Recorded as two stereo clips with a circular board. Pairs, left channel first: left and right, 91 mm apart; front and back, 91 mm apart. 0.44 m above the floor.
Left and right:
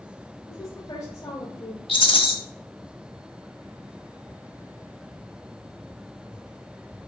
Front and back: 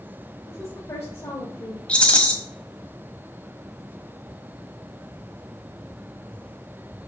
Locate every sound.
0.5 s a woman speaking: 50° left, 1.1 m
1.9 s a rattle: 80° left, 1.3 m